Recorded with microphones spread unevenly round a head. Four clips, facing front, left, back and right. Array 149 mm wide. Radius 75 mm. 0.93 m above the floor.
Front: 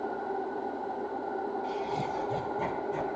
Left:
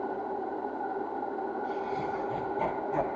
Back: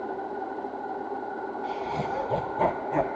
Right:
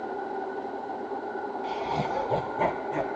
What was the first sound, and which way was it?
Laughter, 105° right.